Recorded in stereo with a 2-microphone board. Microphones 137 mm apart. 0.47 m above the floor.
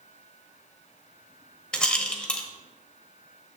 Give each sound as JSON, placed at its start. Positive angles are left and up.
{"t": 1.7, "sound": "a rattle", "side_deg": 5, "distance_m": 0.9}